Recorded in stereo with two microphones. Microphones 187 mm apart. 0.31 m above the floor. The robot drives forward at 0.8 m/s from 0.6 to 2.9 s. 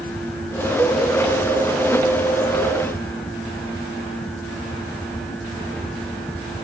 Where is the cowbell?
10° left (ahead or behind), 2.5 m.